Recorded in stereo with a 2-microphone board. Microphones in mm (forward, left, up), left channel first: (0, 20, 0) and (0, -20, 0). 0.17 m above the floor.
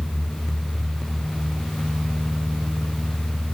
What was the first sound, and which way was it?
Only background noise.